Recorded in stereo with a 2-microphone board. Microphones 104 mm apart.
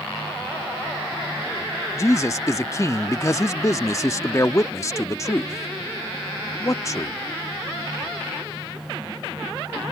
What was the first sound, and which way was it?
A man speaking, 30° left (ahead or behind).